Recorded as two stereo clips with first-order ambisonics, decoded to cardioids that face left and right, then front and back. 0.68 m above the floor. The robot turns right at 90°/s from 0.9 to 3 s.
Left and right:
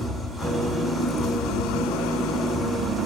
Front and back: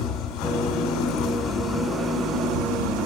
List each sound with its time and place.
0.0 s an engine running: 10° right, 2 m; by 3.1 s straight behind, 2 m